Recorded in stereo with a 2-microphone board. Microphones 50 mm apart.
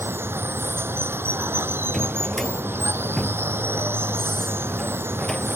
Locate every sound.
0.0 s running water: 55° right (ahead or behind)
1.9 s a drawer: 5° left (ahead or behind)